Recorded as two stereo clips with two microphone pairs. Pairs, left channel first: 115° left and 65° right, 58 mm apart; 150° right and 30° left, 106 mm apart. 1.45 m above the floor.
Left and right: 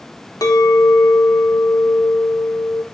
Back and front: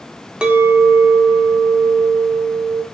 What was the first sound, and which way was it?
A clink, 115° left.